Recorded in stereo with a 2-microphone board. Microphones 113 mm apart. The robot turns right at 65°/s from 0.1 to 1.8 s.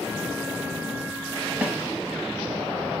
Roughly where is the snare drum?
Centre.